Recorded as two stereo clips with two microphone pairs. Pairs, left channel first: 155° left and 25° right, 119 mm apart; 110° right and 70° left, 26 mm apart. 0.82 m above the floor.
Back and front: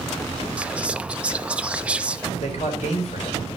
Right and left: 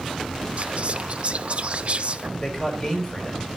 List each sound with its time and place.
0.6 s whispering: 50° left, 0.5 m
2.4 s a man speaking: straight behind, 4.5 m